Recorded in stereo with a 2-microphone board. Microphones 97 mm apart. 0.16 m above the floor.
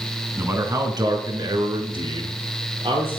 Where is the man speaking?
25° right (ahead or behind), 1.5 m; by 3.2 s 70° right (ahead or behind), 3.5 m.